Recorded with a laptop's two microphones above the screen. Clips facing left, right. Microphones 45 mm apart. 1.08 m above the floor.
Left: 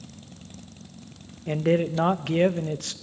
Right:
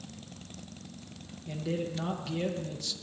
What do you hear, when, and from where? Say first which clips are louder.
1.5 s a man speaking: left 11 dB; 50° left (ahead or behind), 0.6 m